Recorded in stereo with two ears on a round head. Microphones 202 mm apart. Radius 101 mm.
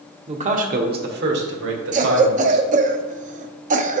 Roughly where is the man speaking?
Right.